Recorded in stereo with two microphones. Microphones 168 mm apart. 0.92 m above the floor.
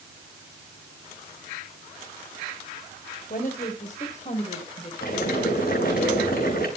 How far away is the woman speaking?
About 5.5 m.